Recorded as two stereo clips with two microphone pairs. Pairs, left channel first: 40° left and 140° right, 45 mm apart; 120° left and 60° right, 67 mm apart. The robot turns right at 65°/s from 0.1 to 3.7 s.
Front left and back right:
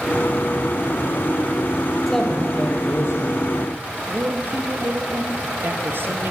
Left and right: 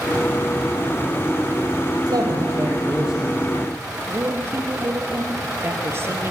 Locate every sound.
2.1 s a man speaking: 50° right, 6 m; by 3.4 s 35° left, 6 m
4.1 s a man speaking: 110° right, 3 m